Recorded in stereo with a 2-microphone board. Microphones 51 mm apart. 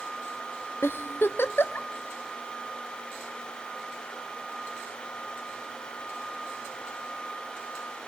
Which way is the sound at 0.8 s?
50° left (ahead or behind).